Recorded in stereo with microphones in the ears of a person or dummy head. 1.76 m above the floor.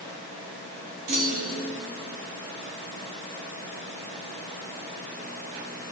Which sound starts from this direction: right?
A clunk, at 1.1 s.